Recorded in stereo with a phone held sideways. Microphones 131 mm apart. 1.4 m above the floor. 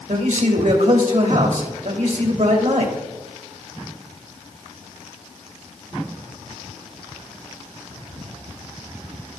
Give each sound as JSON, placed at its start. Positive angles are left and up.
{"t": 0.1, "sound": "a man speaking", "side_deg": -75, "distance_m": 2.0}